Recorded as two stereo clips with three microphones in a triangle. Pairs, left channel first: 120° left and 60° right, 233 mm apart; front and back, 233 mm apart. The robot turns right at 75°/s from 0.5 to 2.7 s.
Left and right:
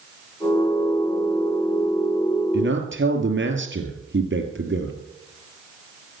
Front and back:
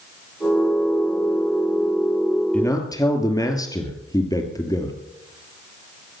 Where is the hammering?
No hammering in this recording.